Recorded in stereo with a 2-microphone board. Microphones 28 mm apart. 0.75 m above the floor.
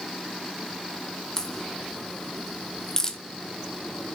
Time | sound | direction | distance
1.4 | a crack | 20° left (ahead or behind) | 1.3 m